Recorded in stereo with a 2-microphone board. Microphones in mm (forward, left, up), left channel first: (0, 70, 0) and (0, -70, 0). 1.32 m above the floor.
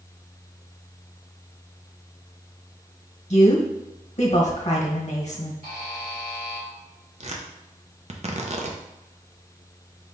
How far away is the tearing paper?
About 0.6 m.